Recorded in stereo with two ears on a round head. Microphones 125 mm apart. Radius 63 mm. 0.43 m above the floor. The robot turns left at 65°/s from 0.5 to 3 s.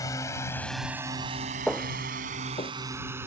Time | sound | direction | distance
0.0 | a drone | 25° left (ahead or behind) | ?
1.7 | footsteps | centre (ahead or behind) | ?